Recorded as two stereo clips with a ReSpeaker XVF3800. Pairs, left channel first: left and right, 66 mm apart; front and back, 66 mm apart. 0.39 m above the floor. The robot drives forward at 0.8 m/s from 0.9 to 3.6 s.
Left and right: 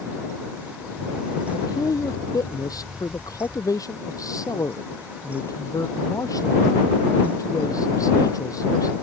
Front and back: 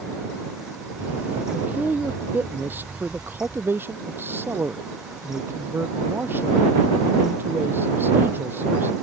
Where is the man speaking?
115° left; by 8.9 s 120° left.